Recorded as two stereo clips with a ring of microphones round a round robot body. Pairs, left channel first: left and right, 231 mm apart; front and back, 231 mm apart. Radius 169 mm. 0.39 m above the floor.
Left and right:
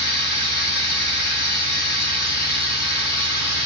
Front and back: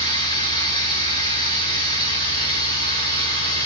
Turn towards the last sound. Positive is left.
turn(degrees=70)